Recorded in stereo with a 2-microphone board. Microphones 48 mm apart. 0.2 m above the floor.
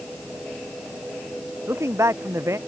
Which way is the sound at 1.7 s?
75° right (ahead or behind).